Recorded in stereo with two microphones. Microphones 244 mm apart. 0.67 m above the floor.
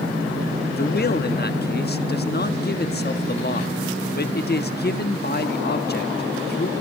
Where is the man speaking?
40° left (ahead or behind), 1.3 m.